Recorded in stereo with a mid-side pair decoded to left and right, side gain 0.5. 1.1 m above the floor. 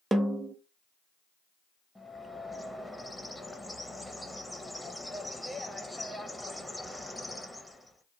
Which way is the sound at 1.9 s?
5° left.